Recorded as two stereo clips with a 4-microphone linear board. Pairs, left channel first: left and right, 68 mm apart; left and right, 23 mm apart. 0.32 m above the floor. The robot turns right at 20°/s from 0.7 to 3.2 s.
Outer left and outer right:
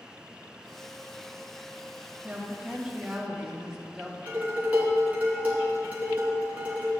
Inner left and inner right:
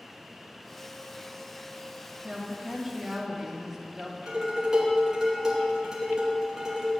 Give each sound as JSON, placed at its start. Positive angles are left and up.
{"t": 2.2, "sound": "a woman speaking", "side_deg": -20, "distance_m": 1.7}
{"t": 4.3, "sound": "dishes clattering", "side_deg": -20, "distance_m": 2.5}